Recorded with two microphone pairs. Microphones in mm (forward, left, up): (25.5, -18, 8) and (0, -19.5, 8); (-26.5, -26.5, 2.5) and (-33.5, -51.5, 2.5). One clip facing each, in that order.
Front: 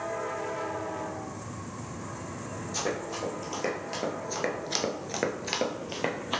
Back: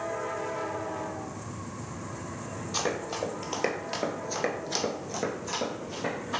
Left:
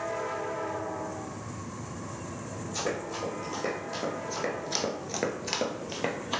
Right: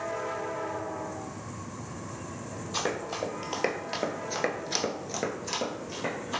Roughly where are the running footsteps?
Behind right.